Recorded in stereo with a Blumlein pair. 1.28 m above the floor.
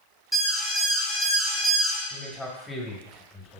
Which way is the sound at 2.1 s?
5° left.